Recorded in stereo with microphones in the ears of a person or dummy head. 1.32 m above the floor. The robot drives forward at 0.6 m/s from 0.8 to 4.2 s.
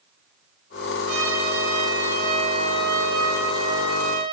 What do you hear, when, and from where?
1.1 s a trumpet: 85° right, 8 m; by 4.2 s 80° right, 8.5 m